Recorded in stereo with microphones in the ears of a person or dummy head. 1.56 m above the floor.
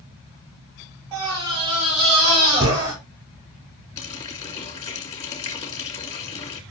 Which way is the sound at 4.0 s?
40° left (ahead or behind).